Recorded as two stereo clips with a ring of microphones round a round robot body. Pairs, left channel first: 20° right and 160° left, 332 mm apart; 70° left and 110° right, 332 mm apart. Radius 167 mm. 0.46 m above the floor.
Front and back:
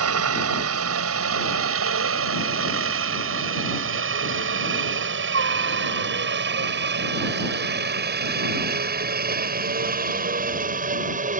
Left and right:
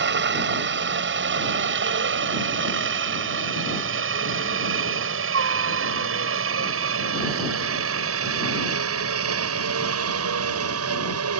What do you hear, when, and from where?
0.0 s a helicopter: 165° right; by 11.4 s 140° right